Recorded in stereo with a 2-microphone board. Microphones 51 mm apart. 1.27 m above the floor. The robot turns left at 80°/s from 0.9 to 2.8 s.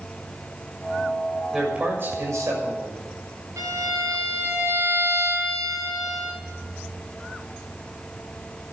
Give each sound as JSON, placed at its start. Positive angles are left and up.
{"t": 1.5, "sound": "a man speaking", "azimuth_deg": -5, "distance_m": 6.5}
{"t": 3.6, "sound": "a violin", "side_deg": -80, "distance_m": 8.5}